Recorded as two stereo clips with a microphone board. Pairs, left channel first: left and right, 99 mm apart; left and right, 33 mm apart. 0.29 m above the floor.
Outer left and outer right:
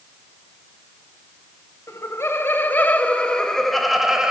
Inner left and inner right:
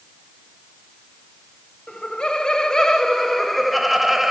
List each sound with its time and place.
1.9 s laughter: 30° left (ahead or behind), 1.6 m; by 4.3 s 5° right (ahead or behind), 1.4 m